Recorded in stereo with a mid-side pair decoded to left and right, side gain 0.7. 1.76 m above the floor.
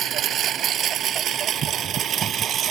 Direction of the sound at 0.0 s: 45° right.